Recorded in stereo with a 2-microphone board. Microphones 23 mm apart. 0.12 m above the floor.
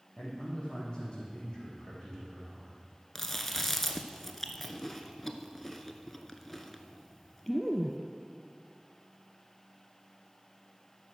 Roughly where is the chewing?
Centre.